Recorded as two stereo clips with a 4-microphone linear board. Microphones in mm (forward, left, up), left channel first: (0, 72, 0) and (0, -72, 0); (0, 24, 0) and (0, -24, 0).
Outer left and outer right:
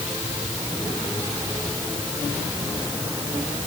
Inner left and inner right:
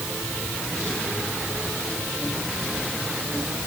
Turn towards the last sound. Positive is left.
No sound to turn to.